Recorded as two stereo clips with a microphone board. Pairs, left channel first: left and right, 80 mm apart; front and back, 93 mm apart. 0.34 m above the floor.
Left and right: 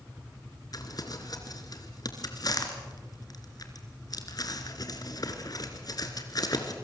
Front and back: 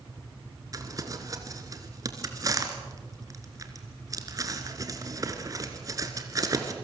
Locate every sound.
0.7 s crumpling: 125° left, 2.5 m